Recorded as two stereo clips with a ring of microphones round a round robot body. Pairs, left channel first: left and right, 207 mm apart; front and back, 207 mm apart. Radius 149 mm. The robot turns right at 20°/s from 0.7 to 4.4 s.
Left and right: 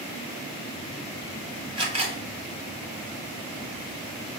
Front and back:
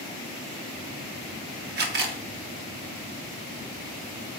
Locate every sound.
1.8 s a camera shutter: 155° right, 0.5 m; by 2.2 s 145° right, 0.5 m